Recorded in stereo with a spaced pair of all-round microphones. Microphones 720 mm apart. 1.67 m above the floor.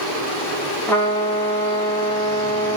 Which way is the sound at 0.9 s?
5° left (ahead or behind).